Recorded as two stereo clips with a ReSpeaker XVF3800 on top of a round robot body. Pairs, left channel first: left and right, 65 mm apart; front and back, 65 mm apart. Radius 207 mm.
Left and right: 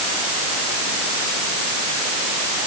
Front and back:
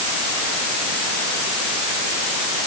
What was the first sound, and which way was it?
Only background noise.